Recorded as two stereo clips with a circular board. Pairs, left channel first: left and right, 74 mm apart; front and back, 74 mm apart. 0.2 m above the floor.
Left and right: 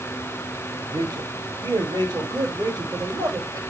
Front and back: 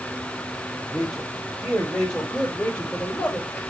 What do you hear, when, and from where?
0.9 s a man speaking: 90° right, 6.5 m; by 3.6 s 70° right, 4.5 m